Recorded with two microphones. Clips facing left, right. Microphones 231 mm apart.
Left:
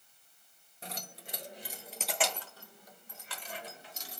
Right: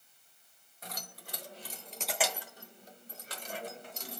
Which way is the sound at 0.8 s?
30° left (ahead or behind).